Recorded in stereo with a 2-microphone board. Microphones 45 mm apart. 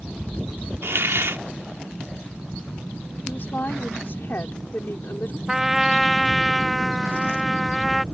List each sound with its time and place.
0.8 s a hiss: 70° right (ahead or behind)
3.3 s a woman speaking: 55° left (ahead or behind)
5.5 s a trumpet: 5° right (ahead or behind)